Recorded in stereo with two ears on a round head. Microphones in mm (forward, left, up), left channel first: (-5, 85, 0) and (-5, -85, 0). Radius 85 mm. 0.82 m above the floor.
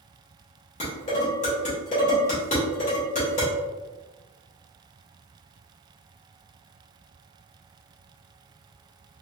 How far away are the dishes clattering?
About 1.8 m.